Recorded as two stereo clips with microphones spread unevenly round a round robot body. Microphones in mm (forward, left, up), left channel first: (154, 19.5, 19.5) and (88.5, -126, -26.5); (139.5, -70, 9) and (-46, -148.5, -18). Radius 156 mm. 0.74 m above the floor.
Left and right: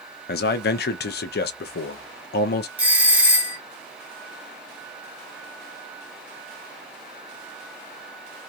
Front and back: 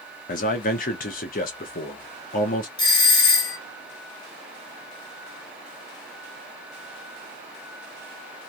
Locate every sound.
0.3 s a man speaking: 70° left, 0.5 m
2.8 s a doorbell: 50° right, 1.6 m